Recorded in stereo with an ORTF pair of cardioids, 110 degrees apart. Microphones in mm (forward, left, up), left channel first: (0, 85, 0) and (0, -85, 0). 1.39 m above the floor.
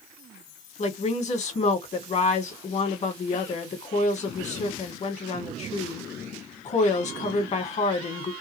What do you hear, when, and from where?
0.8 s a woman speaking: 45° left, 1.6 m